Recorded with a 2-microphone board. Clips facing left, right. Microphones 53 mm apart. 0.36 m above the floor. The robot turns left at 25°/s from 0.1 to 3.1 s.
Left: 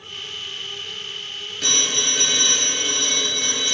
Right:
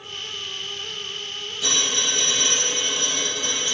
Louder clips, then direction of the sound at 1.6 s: Left 1 dB; 120° left.